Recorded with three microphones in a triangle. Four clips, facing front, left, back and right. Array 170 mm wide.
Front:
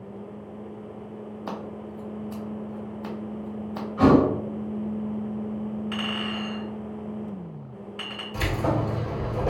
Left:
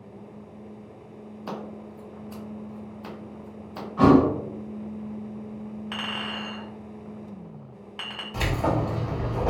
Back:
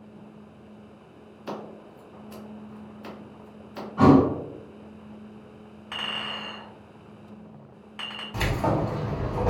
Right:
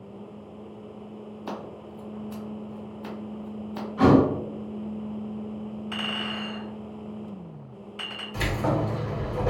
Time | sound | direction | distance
1.5 | scissors | 5° left | 1.1 m
4.0 | a thud | 150° left | 1.7 m
5.9 | a clink | 105° left | 1.9 m
8.3 | keys jangling | 150° left | 1.6 m